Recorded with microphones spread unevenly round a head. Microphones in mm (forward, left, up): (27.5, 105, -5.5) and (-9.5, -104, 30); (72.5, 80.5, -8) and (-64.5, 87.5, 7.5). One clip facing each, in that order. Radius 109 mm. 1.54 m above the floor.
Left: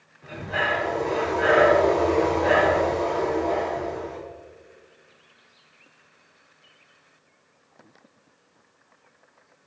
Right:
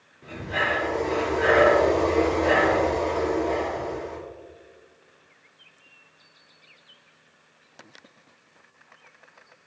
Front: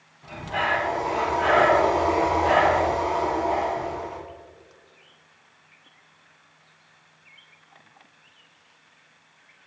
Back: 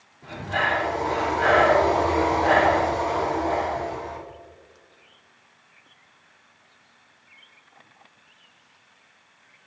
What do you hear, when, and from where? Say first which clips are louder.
0.2 s breathing: even, back 1 dB; 145° right, 3 m